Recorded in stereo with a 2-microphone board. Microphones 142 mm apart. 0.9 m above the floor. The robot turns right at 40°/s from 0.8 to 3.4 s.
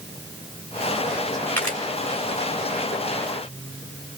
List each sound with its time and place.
1.6 s a camera shutter: 10° left (ahead or behind), 1.7 m; by 1.8 s centre (ahead or behind), 1.7 m